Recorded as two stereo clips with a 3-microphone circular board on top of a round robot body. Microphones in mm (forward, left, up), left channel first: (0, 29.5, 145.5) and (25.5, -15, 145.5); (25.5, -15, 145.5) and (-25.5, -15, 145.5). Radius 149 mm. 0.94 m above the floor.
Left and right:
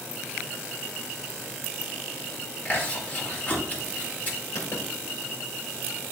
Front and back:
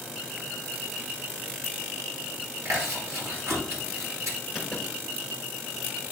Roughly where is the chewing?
Behind.